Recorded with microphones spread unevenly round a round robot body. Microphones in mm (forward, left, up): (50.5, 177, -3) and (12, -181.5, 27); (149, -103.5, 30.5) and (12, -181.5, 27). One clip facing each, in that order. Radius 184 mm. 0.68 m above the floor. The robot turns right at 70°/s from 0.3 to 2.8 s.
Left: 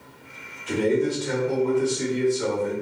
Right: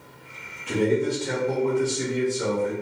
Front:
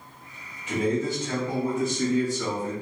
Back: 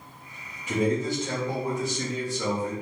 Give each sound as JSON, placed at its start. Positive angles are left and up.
{"t": 0.7, "sound": "a man speaking", "azimuth_deg": 120, "distance_m": 1.3}